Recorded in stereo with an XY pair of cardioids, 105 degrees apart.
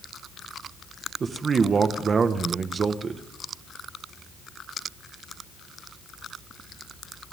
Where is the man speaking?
40° right, 1.5 m.